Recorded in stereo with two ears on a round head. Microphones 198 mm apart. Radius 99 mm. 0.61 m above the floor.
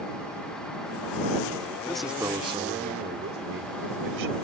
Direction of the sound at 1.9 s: 5° left (ahead or behind).